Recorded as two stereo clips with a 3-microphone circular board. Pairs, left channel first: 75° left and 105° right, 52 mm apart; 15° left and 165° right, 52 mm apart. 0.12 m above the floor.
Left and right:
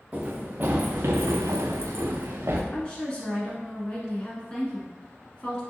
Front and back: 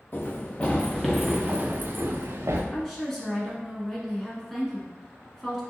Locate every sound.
0.1 s running footsteps: 40° right, 0.9 m; by 2.6 s 145° right, 0.8 m
2.7 s a woman speaking: 90° left, 1.1 m